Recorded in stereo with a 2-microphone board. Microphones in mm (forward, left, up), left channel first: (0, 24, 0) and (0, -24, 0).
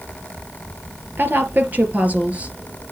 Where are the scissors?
No scissors in this recording.